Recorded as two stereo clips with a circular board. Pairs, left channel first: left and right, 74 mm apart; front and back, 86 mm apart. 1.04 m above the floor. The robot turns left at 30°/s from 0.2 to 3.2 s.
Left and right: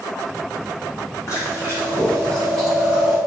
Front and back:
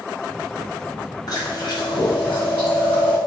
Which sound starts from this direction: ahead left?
Chewing, at 1.3 s.